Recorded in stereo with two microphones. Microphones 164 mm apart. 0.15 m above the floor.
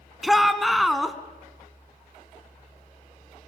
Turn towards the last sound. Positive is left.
turn(degrees=0)  # may be behind; listen again after turning